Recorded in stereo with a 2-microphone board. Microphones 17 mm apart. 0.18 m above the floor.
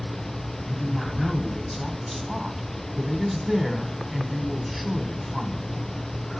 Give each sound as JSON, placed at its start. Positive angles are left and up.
{"t": 0.7, "sound": "a woman speaking", "side_deg": 0, "distance_m": 1.1}